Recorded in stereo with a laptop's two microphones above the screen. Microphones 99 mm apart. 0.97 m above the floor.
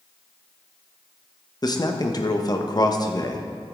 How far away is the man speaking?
About 1.0 m.